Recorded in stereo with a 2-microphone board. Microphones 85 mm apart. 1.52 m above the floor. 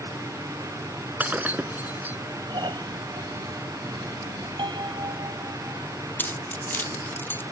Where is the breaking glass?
20° right (ahead or behind).